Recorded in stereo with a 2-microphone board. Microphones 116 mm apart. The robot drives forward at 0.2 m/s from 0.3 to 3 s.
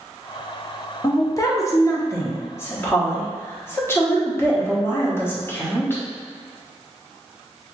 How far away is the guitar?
No guitar in this recording.